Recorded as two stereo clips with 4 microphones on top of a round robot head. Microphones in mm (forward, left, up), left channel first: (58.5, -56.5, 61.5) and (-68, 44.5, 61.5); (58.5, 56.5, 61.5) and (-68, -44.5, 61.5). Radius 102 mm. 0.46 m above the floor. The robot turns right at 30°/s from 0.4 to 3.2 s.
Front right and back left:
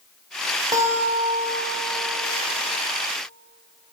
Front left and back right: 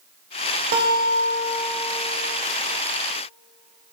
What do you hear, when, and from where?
0.7 s a guitar: 155° right, 1.9 m; by 2.0 s 115° right, 1.9 m